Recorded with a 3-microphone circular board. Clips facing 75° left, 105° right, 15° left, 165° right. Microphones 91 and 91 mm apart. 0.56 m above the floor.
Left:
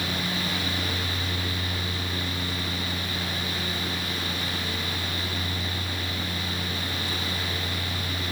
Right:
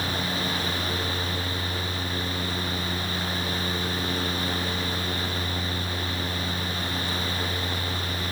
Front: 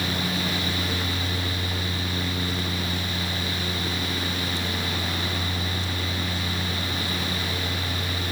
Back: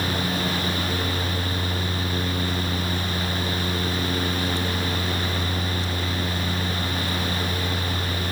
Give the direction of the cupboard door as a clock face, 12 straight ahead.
No cupboard door in this recording.